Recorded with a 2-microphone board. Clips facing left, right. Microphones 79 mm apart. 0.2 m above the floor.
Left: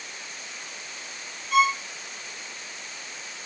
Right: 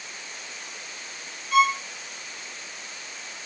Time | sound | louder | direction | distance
1.5 | a violin | right 1 dB | centre (ahead or behind) | 0.6 m